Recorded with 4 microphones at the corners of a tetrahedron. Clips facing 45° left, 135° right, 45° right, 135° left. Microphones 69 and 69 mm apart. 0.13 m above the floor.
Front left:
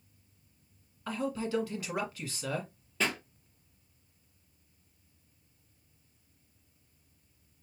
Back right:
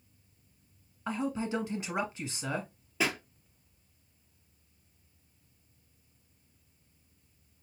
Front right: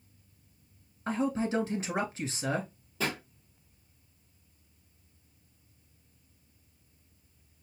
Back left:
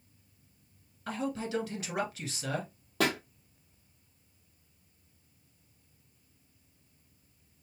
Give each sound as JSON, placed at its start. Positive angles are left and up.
{"t": 1.1, "sound": "a man speaking", "azimuth_deg": -85, "distance_m": 1.3}
{"t": 3.0, "sound": "a pop", "azimuth_deg": 145, "distance_m": 0.9}